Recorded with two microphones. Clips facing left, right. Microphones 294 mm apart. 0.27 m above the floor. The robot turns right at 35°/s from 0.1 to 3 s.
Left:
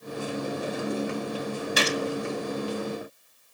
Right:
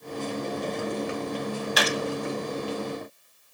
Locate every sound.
1.8 s a gunshot: 30° left (ahead or behind), 2 m; by 2.0 s 35° left (ahead or behind), 2 m